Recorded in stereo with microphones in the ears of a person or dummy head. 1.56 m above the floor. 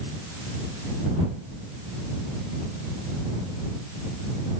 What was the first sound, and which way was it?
Only background noise.